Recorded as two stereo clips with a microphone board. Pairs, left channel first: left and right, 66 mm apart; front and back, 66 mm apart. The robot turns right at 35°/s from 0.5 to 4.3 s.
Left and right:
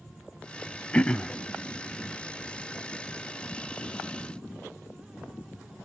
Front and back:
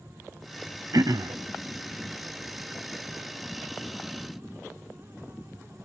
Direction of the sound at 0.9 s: 160° left.